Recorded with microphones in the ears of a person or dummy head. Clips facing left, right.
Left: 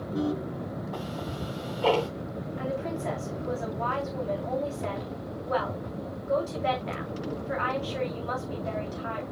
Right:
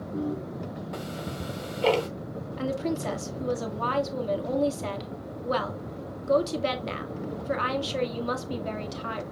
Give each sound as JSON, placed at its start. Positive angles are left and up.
{"t": 0.9, "sound": "ticking", "side_deg": -30, "distance_m": 1.2}
{"t": 2.6, "sound": "a woman speaking", "side_deg": -55, "distance_m": 1.9}